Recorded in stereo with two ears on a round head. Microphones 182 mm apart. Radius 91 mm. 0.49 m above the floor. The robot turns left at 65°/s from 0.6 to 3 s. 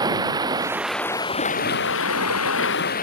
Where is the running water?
160° right; by 3.0 s 45° left.